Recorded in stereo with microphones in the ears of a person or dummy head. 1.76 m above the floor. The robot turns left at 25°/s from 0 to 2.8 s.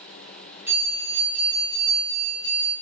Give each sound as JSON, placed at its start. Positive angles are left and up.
{"t": 0.7, "sound": "a bell", "azimuth_deg": -170, "distance_m": 2.5}